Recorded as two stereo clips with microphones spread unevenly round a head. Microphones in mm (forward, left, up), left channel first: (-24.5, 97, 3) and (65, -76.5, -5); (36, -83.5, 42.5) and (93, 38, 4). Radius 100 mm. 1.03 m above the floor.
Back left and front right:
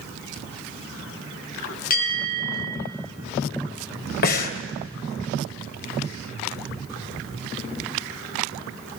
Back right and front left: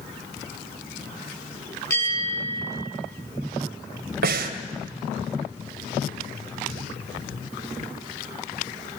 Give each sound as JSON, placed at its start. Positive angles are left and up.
{"t": 1.9, "sound": "a bell", "azimuth_deg": 170, "distance_m": 6.0}
{"t": 4.2, "sound": "breathing", "azimuth_deg": 75, "distance_m": 2.5}